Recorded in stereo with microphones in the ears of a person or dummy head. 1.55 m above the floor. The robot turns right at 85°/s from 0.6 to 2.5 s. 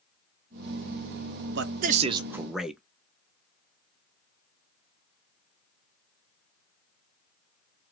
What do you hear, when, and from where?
1.6 s a man speaking: 80° right, 0.6 m; by 2.8 s straight ahead, 0.6 m